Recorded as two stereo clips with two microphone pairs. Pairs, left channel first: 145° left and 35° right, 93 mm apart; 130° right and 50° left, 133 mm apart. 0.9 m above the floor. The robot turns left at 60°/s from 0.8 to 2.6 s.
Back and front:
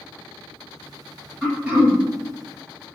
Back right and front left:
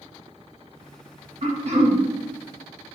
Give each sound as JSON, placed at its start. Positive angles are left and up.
{"t": 1.4, "sound": "throat clearing", "azimuth_deg": 55, "distance_m": 1.3}